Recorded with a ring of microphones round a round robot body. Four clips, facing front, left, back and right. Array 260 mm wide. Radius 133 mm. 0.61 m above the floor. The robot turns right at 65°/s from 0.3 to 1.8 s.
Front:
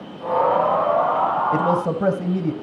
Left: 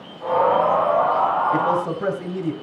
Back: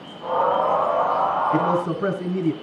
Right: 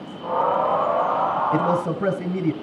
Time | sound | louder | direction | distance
1.5 | a man speaking | left 1 dB, front 1 dB | 40° right | 3.5 m